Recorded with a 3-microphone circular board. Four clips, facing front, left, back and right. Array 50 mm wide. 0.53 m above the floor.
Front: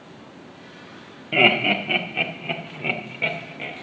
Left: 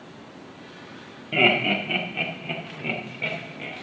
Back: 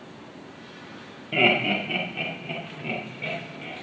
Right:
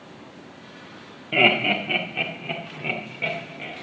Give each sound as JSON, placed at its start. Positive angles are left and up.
{"t": 1.3, "sound": "laughter", "azimuth_deg": -30, "distance_m": 1.3}